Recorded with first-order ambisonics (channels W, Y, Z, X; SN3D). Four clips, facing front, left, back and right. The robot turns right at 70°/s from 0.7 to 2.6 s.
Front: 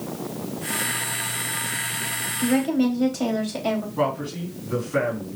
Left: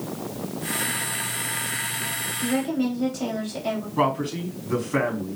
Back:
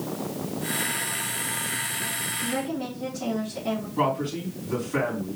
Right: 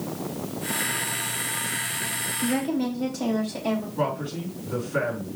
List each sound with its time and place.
2.4 s a woman speaking: 5° right, 3.5 m; by 3.9 s 5° left, 3.5 m
4.0 s a man speaking: 90° left, 4.5 m